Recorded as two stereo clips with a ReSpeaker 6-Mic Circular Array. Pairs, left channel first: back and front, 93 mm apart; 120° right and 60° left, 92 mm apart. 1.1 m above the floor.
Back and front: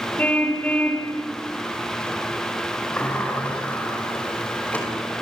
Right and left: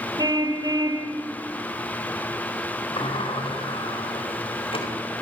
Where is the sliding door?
105° right, 5 m.